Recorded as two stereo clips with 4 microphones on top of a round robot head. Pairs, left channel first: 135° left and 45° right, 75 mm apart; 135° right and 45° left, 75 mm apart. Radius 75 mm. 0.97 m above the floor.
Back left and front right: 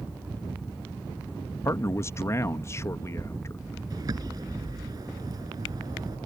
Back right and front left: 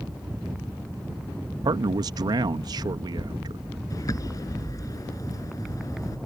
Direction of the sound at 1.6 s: 80° left.